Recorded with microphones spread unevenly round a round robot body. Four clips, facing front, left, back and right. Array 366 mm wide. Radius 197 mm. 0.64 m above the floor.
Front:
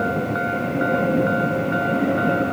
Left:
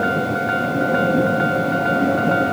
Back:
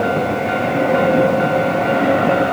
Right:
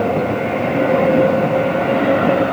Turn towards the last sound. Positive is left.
No sound to turn to.